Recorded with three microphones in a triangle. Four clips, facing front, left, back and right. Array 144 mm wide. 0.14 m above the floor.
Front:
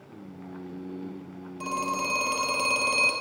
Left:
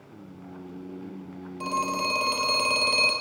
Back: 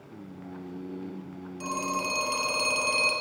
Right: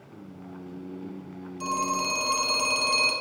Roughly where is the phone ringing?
Ahead left.